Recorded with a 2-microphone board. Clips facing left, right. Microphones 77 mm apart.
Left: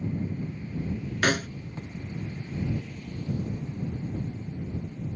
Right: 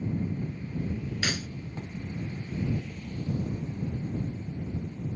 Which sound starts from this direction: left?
A snare drum, at 1.2 s.